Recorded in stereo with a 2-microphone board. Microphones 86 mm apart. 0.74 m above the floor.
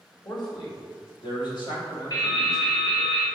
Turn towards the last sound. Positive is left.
turn(degrees=40)  # may be behind; listen again after turning